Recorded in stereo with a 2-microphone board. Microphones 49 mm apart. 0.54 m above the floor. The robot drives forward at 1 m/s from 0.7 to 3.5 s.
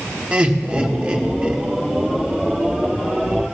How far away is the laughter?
About 1.4 m.